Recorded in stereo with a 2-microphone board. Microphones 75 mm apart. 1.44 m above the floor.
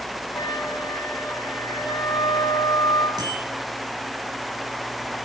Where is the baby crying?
I don't hear a baby crying.